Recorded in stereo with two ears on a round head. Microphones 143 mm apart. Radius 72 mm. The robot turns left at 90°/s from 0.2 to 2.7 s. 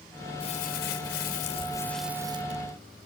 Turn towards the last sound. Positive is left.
turn(degrees=-60)